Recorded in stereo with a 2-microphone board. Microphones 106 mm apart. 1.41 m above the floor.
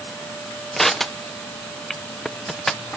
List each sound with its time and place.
0.8 s crushing: 5° left (ahead or behind), 0.9 m